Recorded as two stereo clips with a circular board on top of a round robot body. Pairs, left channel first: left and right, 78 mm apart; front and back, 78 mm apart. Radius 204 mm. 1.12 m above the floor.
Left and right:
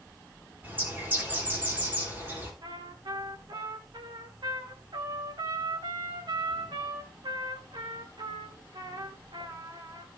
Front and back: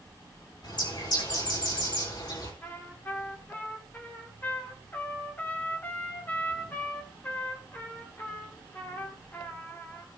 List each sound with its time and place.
0.6 s a bird: 25° right, 5 m
2.6 s a trumpet: 65° right, 3 m